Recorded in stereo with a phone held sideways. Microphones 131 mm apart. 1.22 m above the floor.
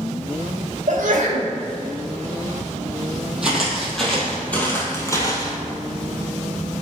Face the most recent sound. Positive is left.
turn(degrees=30)  # may be behind; listen again after turning